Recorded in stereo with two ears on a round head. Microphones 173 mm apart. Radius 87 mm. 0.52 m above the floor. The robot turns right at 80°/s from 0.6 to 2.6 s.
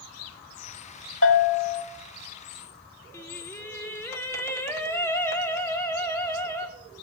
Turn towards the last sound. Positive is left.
turn(degrees=15)  # may be behind; listen again after turning